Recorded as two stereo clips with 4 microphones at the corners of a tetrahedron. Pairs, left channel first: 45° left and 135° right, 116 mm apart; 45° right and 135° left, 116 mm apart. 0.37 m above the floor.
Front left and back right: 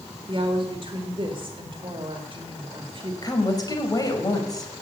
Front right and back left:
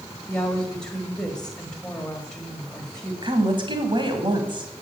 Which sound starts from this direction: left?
A woman speaking, at 3.2 s.